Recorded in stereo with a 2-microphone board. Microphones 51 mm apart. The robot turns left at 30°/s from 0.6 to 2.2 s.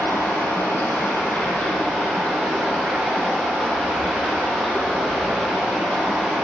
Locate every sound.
0.0 s running water: 55° left, 4 m; by 6.5 s 10° left, 4 m